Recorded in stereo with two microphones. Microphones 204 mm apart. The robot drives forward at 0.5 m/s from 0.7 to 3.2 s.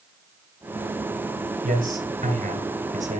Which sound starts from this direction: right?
A man speaking, at 1.6 s.